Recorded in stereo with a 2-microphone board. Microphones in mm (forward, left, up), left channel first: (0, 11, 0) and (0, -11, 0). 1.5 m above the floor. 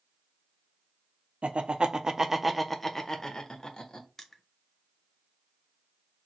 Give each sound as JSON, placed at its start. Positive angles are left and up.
{"t": 1.4, "sound": "laughter", "side_deg": -60, "distance_m": 0.7}
{"t": 4.2, "sound": "crushing", "side_deg": 15, "distance_m": 0.7}